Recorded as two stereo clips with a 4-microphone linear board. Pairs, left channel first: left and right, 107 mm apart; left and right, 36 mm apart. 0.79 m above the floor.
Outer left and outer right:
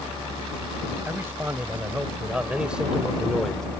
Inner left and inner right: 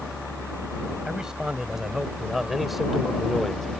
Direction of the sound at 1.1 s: 20° right (ahead or behind).